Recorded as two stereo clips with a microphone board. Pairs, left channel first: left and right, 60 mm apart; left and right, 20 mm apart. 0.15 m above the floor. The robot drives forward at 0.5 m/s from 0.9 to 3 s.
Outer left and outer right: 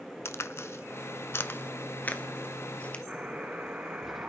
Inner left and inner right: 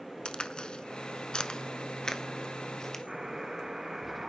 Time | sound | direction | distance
0.2 | a crack | 50° left (ahead or behind) | 0.5 m
3.1 | a buzzer | 25° right (ahead or behind) | 1.7 m